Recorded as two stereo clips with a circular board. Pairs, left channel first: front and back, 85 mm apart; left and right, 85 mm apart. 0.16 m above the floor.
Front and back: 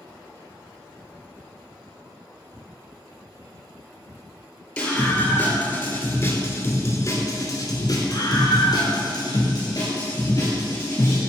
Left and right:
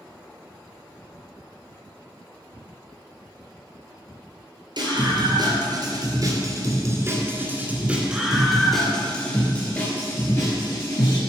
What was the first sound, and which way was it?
A scream, 75° right.